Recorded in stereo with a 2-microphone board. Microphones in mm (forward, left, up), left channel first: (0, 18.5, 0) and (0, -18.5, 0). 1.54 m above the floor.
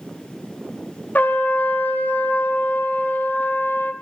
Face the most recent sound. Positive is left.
turn(degrees=50)  # may be behind; listen again after turning